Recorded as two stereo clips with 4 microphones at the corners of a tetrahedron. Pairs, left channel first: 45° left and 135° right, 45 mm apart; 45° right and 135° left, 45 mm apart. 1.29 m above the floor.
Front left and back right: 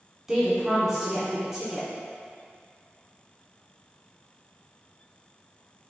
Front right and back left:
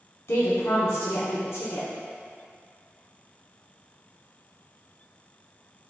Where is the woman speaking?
55° right, 0.9 m.